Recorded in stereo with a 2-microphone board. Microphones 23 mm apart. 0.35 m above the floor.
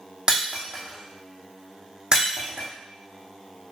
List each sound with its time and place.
0.3 s breaking glass: 30° right (ahead or behind), 2.5 m